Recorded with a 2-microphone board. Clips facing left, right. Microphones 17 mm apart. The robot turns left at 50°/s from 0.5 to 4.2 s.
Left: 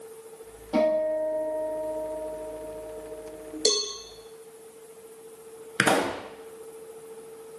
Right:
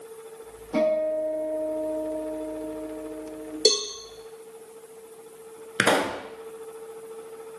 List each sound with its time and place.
0.7 s a guitar: 50° left, 3.5 m; by 3.5 s 90° right, 3.5 m
3.6 s a cowbell: 60° right (ahead or behind), 0.9 m
5.8 s a pop: 35° right (ahead or behind), 0.7 m